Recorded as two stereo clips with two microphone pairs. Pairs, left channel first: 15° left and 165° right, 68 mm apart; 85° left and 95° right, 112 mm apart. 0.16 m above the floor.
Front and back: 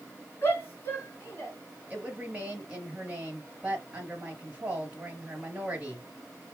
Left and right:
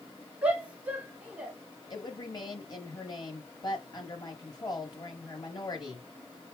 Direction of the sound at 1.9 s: 130° left.